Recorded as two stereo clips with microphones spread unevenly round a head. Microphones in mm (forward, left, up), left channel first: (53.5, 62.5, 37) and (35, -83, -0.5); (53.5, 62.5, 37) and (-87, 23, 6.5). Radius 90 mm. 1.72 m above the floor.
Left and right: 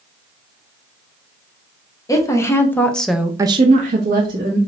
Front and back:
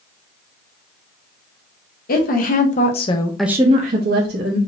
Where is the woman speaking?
20° left, 1.4 m; by 4.6 s 150° right, 1.1 m.